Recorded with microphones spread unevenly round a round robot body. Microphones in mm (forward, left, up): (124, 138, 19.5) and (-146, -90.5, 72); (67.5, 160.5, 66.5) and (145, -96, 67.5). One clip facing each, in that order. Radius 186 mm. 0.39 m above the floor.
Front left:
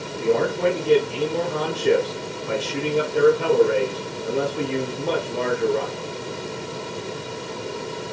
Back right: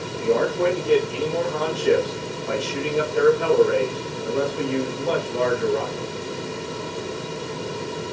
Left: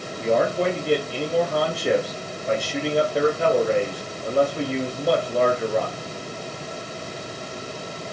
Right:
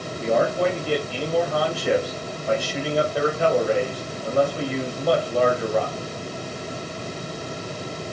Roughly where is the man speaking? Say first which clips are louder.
Even, even; ahead left.